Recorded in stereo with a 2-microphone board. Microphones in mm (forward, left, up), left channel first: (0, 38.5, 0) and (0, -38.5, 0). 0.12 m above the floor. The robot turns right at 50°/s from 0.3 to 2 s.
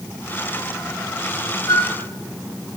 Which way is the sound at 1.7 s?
60° left (ahead or behind).